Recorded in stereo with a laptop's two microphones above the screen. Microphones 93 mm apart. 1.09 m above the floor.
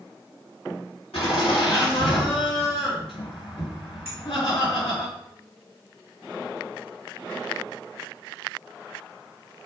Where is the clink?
30° right (ahead or behind), 2.5 m.